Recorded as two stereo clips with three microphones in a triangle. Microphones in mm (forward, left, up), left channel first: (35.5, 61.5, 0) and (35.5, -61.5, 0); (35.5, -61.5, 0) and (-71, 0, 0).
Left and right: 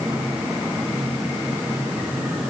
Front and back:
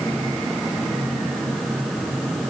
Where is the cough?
No cough in this recording.